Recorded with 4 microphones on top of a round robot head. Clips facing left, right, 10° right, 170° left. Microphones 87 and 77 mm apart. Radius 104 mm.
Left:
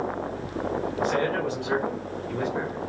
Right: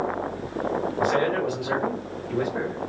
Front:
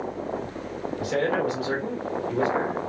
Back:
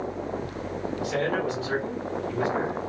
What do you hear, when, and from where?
1.0 s a man speaking: 15° right, 1.9 m